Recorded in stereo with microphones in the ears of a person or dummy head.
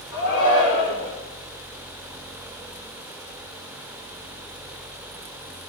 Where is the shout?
70° left (ahead or behind), 3.5 m.